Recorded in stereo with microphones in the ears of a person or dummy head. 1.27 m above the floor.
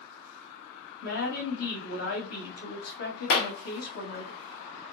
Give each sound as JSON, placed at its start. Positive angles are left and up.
{"t": 1.0, "sound": "a woman speaking", "side_deg": 60, "distance_m": 1.3}
{"t": 3.3, "sound": "a clap", "side_deg": 60, "distance_m": 1.0}